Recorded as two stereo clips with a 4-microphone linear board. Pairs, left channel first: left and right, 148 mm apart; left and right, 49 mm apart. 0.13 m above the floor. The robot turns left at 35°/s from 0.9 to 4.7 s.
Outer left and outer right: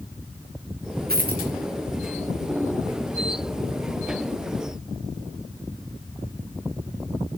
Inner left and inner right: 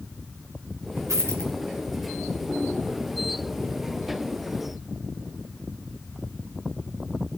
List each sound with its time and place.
1.1 s a dropped coin: 85° right, 3 m; by 1.5 s 70° right (ahead or behind), 3 m